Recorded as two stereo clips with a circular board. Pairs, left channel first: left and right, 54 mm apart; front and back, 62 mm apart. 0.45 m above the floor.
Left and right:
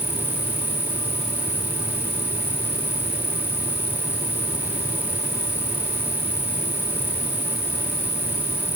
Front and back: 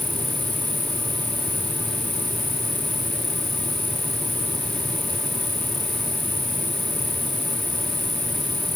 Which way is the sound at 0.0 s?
55° left.